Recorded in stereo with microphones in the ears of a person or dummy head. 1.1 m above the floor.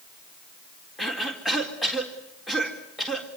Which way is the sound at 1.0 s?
5° right (ahead or behind).